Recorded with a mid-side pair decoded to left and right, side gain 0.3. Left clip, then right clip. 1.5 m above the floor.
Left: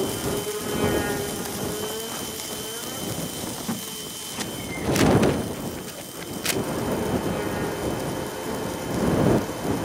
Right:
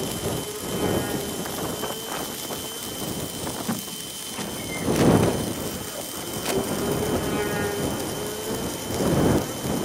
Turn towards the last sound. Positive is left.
turn(degrees=-10)